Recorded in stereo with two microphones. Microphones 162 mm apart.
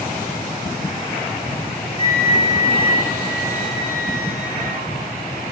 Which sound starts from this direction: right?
A flute, at 2.0 s.